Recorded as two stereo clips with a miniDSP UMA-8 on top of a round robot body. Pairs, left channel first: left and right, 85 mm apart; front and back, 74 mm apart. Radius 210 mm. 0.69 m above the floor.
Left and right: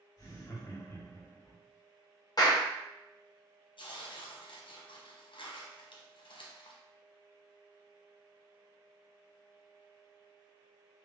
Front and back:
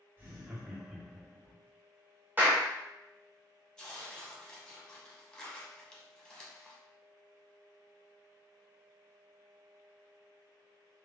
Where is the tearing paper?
80° left, 0.8 m.